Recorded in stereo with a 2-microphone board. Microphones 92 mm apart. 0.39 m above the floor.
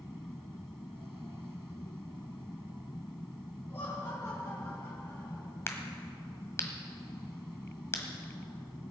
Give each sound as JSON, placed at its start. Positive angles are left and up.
{"t": 3.7, "sound": "laughter", "side_deg": 25, "distance_m": 6.0}
{"t": 5.7, "sound": "a crack", "side_deg": 30, "distance_m": 1.4}